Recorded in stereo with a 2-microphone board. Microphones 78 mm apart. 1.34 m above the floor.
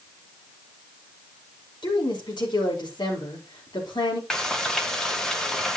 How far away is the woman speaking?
About 4 m.